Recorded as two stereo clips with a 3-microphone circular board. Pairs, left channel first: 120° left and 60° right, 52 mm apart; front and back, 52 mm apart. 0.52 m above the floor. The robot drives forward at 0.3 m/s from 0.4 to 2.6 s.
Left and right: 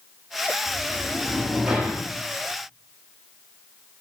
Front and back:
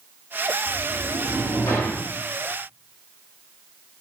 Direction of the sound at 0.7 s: 15° left.